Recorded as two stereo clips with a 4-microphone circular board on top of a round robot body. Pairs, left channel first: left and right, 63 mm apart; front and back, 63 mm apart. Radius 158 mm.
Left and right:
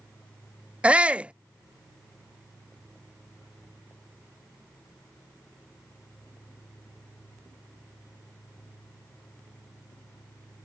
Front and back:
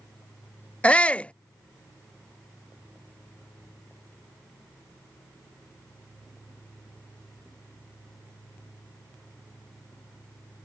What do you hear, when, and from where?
0.8 s a shout: 45° right